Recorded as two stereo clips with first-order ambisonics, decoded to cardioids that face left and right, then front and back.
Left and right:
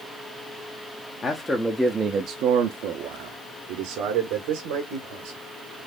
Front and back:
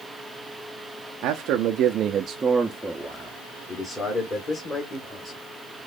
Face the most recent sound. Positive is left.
turn(degrees=-65)